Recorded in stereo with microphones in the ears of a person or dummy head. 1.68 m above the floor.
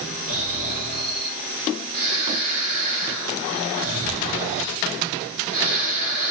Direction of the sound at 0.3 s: 50° right (ahead or behind).